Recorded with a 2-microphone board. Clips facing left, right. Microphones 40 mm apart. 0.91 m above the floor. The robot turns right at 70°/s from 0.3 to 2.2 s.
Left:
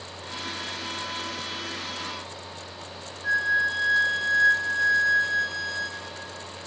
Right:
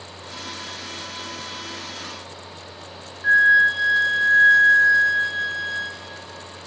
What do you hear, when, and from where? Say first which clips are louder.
3.2 s a flute: right 9 dB; 35° right (ahead or behind), 0.5 m